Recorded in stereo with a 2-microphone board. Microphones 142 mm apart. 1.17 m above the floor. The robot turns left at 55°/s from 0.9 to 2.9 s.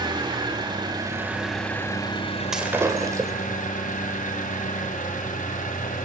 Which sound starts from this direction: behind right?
An engine running, at 0.0 s.